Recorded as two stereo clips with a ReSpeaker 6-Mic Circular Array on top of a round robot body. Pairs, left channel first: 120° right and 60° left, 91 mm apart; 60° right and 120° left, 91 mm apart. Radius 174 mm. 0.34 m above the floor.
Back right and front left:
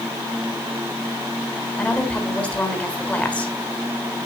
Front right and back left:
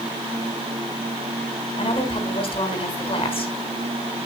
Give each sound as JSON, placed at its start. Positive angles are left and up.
{"t": 1.8, "sound": "a woman speaking", "azimuth_deg": -45, "distance_m": 4.0}